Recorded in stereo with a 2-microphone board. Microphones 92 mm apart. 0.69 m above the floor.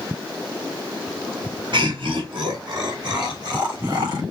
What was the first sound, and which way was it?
Laughter, 55° right (ahead or behind).